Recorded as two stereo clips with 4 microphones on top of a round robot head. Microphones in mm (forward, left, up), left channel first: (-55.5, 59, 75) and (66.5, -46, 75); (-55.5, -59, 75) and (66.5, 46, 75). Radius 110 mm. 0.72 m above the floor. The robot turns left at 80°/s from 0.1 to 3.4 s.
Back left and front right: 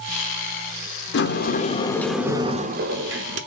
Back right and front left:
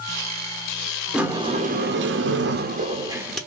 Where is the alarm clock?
No alarm clock in this recording.